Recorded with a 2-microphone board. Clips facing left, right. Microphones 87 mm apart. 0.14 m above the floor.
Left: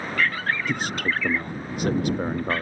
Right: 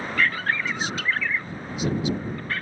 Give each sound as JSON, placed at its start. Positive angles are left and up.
{"t": 0.7, "sound": "a man speaking", "side_deg": 55}